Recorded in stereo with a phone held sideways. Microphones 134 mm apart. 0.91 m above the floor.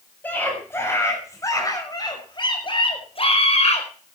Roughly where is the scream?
Centre.